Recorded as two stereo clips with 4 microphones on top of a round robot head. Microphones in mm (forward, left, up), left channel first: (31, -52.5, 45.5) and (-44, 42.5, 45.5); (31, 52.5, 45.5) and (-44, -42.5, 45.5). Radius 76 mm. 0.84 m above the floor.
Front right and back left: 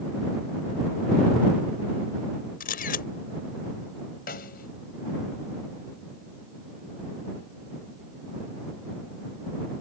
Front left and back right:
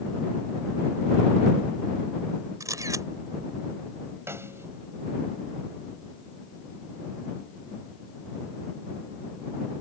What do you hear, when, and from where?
2.6 s a camera shutter: 60° right
4.3 s a snare drum: 55° right